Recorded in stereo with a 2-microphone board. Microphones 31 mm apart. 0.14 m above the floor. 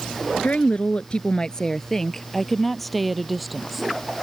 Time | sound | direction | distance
0.4 | a woman speaking | 50° left (ahead or behind) | ?